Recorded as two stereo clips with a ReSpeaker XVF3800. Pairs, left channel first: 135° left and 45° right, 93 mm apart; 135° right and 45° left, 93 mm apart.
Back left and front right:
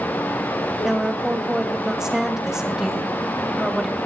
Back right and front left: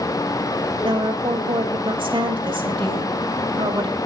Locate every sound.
0.8 s a woman speaking: 40° left, 2.5 m